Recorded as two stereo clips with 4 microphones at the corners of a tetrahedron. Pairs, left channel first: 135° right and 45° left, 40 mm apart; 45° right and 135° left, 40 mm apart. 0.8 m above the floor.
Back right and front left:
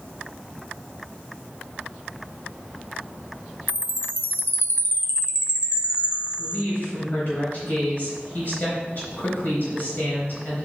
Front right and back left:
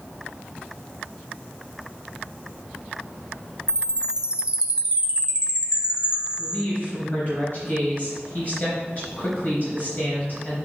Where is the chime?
160° right, 0.5 m.